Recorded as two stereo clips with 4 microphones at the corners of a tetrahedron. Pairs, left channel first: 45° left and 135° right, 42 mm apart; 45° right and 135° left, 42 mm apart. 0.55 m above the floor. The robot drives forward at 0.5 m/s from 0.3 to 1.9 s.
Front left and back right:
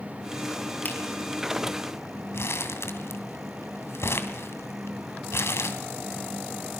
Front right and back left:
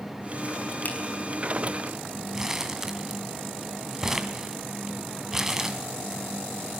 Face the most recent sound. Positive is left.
turn(degrees=55)